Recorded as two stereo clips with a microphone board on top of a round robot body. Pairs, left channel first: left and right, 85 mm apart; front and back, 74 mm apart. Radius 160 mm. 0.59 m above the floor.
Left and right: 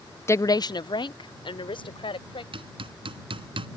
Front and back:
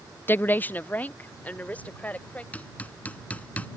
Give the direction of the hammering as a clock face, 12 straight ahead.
2 o'clock.